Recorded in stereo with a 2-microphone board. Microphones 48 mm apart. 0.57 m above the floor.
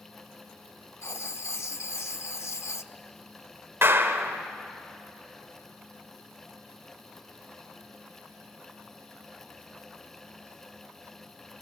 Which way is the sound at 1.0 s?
75° left (ahead or behind).